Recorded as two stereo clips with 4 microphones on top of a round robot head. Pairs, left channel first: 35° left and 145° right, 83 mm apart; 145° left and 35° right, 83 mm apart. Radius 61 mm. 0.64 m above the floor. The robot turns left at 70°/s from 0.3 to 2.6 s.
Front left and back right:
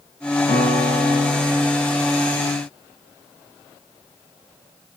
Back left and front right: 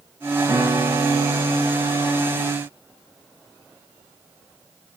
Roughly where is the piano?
Ahead left.